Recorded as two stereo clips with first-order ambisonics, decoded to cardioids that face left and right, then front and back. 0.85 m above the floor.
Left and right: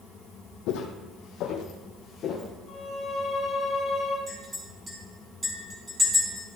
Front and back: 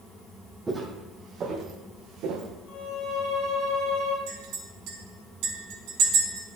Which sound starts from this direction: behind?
A clink, at 4.3 s.